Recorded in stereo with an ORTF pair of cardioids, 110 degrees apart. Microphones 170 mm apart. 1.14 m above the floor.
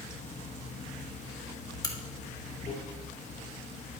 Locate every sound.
0.0 s running water: 45° left, 1.1 m
1.8 s a crack: 20° left, 1.6 m